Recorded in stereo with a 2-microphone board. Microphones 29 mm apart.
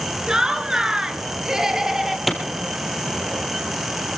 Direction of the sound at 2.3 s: 5° right (ahead or behind).